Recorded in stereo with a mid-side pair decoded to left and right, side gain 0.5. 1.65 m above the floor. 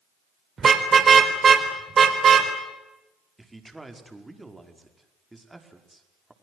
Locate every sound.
0.6 s a car horn: 35° right, 3.5 m; by 2.5 s 40° right, 4.5 m
3.4 s a man speaking: 10° right, 5 m